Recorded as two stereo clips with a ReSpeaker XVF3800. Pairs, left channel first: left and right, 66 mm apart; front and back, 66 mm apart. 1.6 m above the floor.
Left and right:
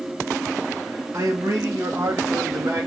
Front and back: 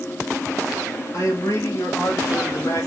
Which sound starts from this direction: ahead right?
A man speaking, at 1.1 s.